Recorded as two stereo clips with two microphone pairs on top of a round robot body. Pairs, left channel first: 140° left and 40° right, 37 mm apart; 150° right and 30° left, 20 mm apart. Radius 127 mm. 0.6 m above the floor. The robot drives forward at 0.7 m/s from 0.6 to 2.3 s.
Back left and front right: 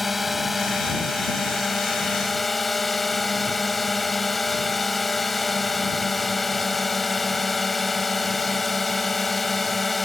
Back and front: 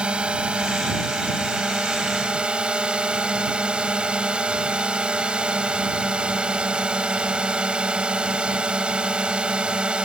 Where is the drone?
45° left; by 10.1 s 55° left.